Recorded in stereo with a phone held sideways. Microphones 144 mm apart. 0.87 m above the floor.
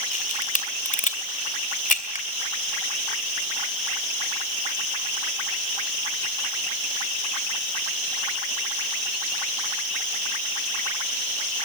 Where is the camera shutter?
65° left (ahead or behind), 2.5 m.